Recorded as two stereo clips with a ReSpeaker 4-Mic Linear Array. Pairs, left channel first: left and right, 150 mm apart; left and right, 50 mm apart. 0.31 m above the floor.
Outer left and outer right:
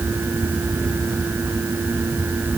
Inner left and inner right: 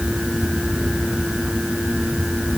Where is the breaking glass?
I don't hear breaking glass.